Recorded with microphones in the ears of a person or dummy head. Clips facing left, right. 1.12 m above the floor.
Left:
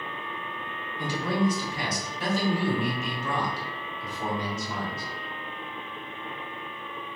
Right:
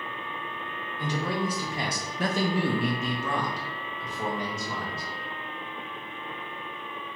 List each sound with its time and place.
1.0 s a man speaking: 15° left (ahead or behind), 0.7 m; by 5.0 s 75° right (ahead or behind), 1.8 m